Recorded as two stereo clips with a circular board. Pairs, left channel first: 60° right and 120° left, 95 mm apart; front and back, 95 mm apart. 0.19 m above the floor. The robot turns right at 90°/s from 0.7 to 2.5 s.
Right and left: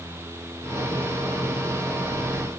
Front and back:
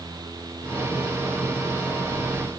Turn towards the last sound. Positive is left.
No sound to turn to.